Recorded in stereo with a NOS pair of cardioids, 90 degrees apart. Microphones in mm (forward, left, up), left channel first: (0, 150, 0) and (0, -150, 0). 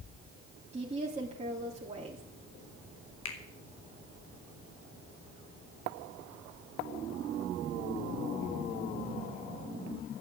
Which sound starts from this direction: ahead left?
A finger snap, at 3.2 s.